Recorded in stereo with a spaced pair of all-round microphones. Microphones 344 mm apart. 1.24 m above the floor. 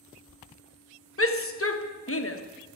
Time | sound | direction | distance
1.2 | a shout | 40° left (ahead or behind) | 1.1 m